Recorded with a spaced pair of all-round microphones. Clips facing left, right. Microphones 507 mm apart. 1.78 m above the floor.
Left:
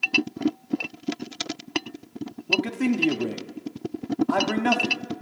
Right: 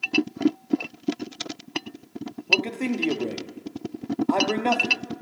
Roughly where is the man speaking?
Left.